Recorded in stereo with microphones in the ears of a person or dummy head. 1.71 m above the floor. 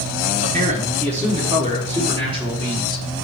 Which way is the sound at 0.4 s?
45° right (ahead or behind).